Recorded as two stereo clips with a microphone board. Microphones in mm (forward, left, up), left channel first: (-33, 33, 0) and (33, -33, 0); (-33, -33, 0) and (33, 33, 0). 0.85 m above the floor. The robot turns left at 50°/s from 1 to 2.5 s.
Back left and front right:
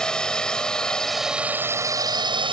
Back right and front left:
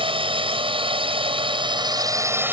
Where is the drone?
55° left; by 2.5 s 20° right.